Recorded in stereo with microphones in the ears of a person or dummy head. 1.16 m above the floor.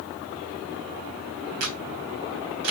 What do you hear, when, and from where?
1.6 s a camera shutter: 80° right, 3 m